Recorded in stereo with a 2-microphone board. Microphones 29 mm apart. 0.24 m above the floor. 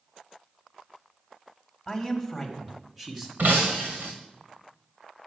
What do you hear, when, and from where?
1.9 s a man speaking: 15° left (ahead or behind), 1.5 m; by 3.3 s 15° right (ahead or behind), 1.9 m
3.4 s breaking glass: 80° right, 2.0 m